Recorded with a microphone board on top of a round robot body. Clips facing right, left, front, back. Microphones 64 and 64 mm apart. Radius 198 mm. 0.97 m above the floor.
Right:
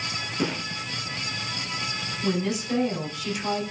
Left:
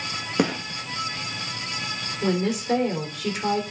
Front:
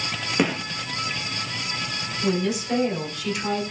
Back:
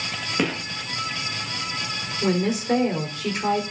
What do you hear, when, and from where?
0.4 s a gunshot: 85° left, 1.7 m
2.2 s a woman speaking: 130° left, 3.5 m